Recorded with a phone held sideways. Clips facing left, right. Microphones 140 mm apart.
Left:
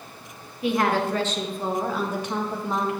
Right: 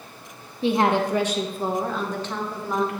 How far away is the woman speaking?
About 1.4 m.